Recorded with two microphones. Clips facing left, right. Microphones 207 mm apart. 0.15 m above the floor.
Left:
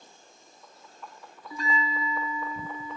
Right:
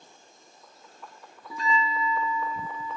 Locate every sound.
1.5 s a bell: 80° right, 2.5 m